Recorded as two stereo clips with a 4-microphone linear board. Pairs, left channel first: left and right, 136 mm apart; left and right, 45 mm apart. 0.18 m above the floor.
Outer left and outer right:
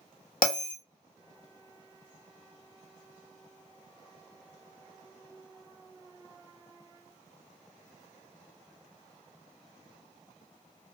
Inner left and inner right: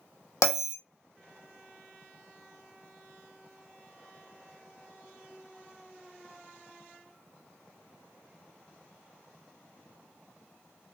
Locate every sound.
0.4 s a bell: 85° left, 0.9 m